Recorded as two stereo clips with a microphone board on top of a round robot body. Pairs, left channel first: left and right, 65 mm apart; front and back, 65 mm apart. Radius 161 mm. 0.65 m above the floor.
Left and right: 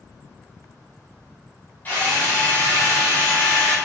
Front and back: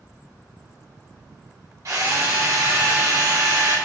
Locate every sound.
1.9 s a drill: 150° left, 2.5 m